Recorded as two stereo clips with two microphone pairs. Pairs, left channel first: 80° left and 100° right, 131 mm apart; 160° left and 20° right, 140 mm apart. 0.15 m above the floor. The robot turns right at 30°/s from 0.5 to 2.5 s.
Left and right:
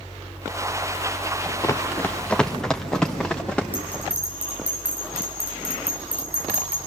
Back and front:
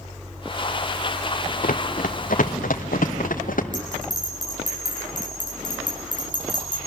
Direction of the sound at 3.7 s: 25° right.